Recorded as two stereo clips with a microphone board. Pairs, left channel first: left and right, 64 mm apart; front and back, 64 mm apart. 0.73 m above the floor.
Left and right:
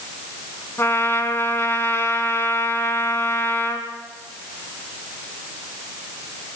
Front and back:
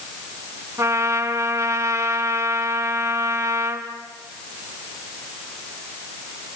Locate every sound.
0.8 s a trumpet: 145° left, 3 m